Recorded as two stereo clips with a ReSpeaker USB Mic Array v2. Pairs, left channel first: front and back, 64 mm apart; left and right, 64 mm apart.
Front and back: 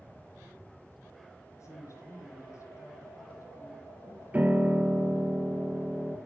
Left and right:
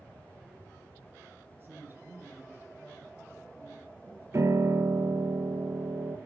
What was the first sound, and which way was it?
A woman speaking, 35° right.